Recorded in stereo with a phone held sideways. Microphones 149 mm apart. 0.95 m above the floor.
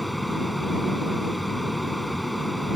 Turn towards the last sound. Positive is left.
turn(degrees=0)  # may be behind; listen again after turning